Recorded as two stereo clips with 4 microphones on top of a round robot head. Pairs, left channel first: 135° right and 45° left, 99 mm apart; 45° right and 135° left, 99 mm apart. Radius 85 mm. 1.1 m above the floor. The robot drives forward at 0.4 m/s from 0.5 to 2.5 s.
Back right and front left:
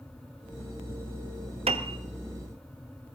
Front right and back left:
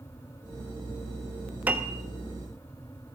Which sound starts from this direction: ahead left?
A piano, at 1.7 s.